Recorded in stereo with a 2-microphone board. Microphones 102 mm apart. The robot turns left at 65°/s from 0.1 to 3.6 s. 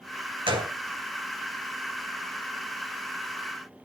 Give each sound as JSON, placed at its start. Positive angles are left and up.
{"t": 0.5, "sound": "a gunshot", "side_deg": -60, "distance_m": 2.5}